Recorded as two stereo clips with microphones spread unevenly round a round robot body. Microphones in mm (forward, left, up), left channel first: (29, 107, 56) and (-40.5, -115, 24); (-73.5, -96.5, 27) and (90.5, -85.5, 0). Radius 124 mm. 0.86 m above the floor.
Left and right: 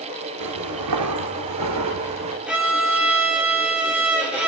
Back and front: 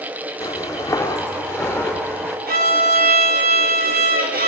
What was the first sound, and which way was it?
Footsteps, 110° right.